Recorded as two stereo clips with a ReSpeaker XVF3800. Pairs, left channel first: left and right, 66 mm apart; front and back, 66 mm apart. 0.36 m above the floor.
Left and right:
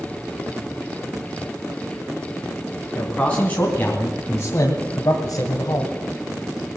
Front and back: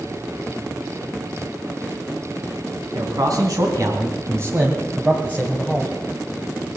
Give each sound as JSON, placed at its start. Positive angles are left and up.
{"t": 2.9, "sound": "a man speaking", "azimuth_deg": 165, "distance_m": 2.5}